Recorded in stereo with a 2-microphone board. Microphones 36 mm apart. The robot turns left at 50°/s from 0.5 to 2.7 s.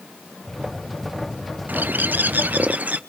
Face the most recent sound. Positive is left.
turn(degrees=-120)